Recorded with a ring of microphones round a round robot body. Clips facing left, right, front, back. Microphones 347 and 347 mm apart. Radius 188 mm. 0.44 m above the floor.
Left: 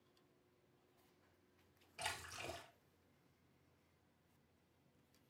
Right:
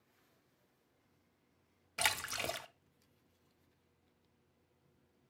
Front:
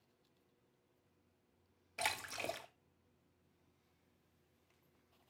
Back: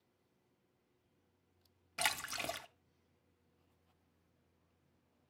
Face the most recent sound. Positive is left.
turn(degrees=-120)